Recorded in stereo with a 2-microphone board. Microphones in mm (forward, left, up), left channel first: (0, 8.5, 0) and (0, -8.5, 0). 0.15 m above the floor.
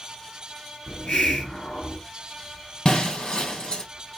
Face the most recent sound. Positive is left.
turn(degrees=50)  # may be behind; listen again after turning